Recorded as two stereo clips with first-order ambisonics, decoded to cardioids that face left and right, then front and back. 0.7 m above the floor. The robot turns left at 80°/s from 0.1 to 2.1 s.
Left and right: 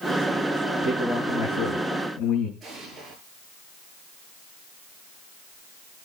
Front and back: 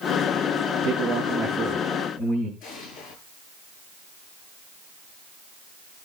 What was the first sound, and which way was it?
A man speaking, 165° left.